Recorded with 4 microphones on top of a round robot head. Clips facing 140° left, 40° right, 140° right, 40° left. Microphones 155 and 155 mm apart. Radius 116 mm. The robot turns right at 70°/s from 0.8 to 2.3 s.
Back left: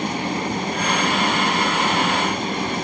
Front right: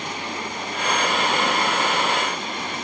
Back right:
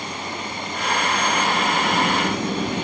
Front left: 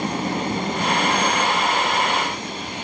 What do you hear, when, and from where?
0.0 s an engine running: 90° left; by 2.9 s 165° right